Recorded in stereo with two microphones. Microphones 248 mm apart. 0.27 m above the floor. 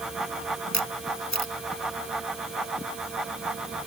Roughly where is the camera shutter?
Left.